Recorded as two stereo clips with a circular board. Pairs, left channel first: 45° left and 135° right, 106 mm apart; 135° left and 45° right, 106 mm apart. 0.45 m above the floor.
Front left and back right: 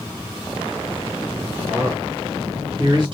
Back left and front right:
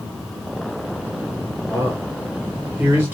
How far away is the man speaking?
About 1.0 m.